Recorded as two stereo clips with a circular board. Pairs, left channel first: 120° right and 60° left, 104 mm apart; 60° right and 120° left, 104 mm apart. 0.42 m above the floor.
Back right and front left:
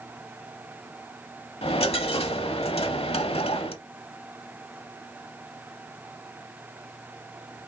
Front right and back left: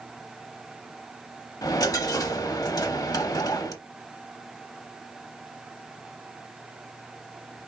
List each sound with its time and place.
1.6 s a dropped coin: 110° right, 0.8 m